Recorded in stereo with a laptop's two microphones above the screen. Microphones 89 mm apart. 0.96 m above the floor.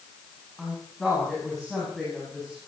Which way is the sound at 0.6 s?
Centre (ahead or behind).